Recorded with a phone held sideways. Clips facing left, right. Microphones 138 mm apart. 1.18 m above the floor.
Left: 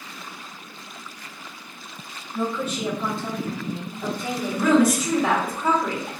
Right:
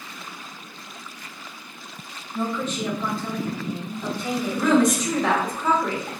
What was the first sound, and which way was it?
A woman speaking, centre (ahead or behind).